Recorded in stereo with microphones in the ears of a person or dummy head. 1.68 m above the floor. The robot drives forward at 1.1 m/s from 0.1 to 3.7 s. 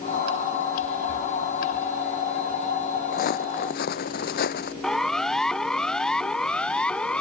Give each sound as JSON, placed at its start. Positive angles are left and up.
{"t": 3.1, "sound": "footsteps", "side_deg": 55}
{"t": 4.8, "sound": "a siren", "side_deg": 0}